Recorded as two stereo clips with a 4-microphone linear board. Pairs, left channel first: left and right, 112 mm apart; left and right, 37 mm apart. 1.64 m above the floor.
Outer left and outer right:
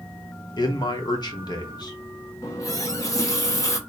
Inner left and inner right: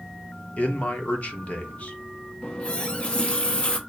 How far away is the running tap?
About 0.7 m.